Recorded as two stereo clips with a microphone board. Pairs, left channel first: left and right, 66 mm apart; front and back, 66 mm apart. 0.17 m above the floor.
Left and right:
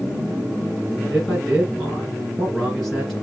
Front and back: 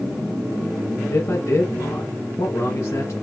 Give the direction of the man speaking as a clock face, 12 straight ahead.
12 o'clock.